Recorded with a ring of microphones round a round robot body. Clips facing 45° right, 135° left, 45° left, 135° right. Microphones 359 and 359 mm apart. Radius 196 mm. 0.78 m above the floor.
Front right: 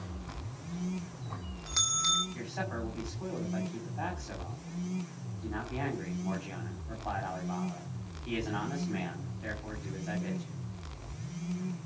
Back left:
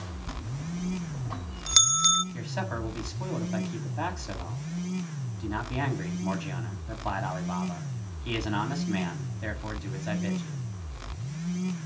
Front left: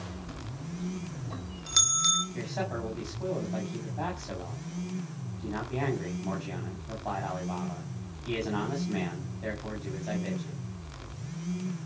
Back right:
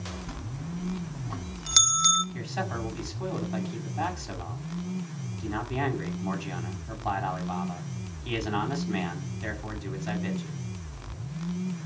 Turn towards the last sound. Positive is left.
turn(degrees=165)